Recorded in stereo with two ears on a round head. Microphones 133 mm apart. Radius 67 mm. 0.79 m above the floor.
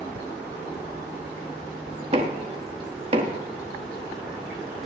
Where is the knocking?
40° right (ahead or behind), 1.3 m.